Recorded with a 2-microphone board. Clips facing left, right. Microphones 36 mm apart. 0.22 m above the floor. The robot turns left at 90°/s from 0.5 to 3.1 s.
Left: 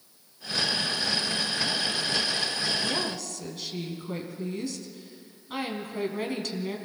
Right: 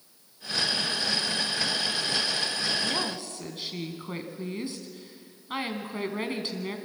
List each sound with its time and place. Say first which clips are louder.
2.8 s a woman speaking: even; 5° right (ahead or behind), 2 m; by 6.8 s 25° right (ahead or behind), 2 m